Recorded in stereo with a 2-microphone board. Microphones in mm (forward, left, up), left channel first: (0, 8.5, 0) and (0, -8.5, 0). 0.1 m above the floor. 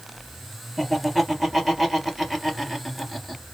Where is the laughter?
5° left (ahead or behind), 2 m.